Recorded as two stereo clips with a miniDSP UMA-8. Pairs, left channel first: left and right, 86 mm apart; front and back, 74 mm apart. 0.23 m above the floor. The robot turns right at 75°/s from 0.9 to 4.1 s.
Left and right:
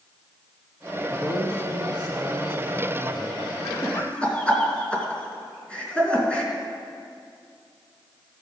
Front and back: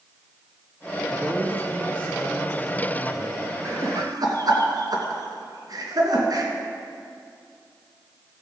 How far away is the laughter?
About 2.5 m.